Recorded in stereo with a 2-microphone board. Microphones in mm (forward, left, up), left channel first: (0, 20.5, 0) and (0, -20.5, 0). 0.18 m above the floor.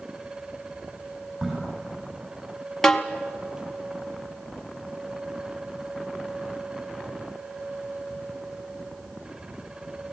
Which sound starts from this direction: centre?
A snare drum, at 2.8 s.